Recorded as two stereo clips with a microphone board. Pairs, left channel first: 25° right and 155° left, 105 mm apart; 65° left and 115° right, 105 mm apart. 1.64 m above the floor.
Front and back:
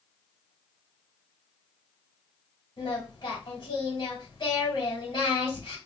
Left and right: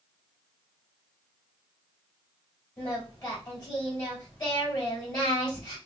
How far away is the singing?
About 2 m.